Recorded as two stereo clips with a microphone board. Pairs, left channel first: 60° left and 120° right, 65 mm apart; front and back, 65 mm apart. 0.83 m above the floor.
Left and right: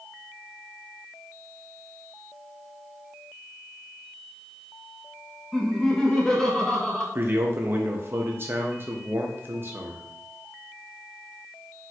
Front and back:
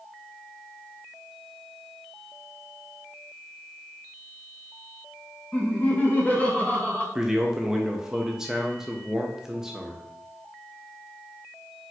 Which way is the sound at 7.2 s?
100° right.